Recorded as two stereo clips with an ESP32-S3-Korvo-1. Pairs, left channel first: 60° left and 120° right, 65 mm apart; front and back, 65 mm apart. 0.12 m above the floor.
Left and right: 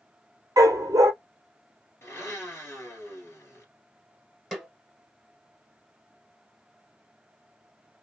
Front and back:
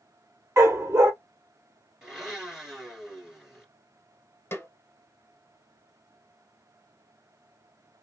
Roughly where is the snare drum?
Ahead right.